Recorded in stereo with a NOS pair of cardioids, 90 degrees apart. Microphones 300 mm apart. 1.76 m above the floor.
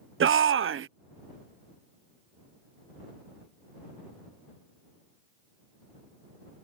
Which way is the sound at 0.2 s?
45° right.